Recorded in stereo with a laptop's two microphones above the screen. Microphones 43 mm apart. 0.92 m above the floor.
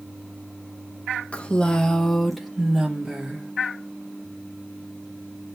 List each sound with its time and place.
1.3 s a woman speaking: 30° left (ahead or behind), 1.0 m; by 3.5 s 20° right (ahead or behind), 1.4 m